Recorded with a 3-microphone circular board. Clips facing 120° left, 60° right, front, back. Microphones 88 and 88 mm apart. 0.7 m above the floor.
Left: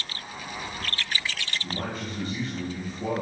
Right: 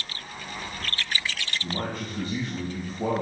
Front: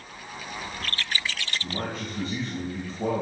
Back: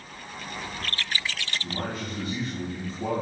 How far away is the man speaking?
About 3 m.